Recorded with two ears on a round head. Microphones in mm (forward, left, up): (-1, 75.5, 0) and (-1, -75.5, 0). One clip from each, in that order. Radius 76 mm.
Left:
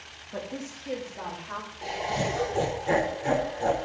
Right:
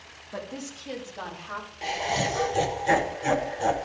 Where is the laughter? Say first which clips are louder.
Right 3 dB; 55° right (ahead or behind), 1.1 m.